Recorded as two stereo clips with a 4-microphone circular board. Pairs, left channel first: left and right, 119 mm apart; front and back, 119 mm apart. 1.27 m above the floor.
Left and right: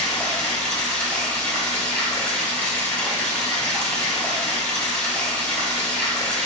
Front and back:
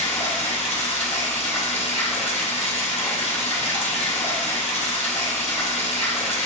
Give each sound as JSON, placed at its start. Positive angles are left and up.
{"t": 0.0, "sound": "running water", "azimuth_deg": 5, "distance_m": 2.0}